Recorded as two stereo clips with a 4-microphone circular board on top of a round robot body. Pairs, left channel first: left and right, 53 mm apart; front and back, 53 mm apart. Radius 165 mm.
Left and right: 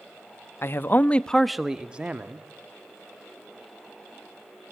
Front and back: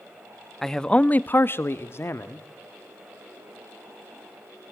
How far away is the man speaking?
About 1.0 m.